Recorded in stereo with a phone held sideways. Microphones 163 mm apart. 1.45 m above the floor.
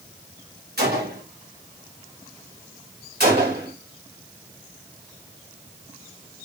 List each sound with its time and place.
0.8 s a gunshot: 75° right (ahead or behind), 1.5 m
3.2 s a gunshot: 80° right, 2 m